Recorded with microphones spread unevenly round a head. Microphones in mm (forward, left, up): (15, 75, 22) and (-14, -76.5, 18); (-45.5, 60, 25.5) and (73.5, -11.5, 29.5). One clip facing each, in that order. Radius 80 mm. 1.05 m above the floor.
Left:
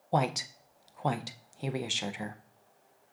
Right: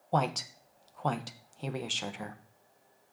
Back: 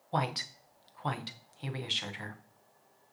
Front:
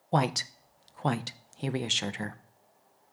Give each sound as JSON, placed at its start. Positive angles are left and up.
{"t": 0.1, "sound": "a woman speaking", "azimuth_deg": 0, "distance_m": 0.5}